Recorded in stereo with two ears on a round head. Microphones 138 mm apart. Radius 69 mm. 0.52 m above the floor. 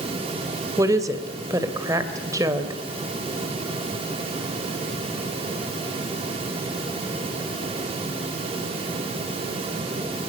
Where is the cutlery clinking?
No cutlery clinking in this recording.